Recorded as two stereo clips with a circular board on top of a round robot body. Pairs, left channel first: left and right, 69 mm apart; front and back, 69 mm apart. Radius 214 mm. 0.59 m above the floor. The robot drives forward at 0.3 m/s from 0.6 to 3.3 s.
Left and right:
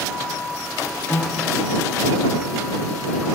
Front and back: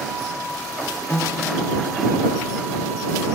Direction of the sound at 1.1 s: 45° left.